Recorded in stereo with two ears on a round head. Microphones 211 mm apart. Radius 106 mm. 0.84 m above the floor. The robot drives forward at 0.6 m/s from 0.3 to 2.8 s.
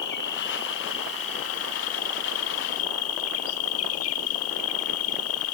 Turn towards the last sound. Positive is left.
turn(degrees=70)  # may be behind; listen again after turning